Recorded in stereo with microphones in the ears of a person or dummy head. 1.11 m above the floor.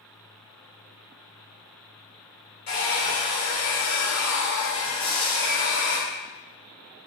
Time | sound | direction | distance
2.7 | a hair dryer | 80° left | 1.5 m
5.0 | frying | 40° left (ahead or behind) | 1.3 m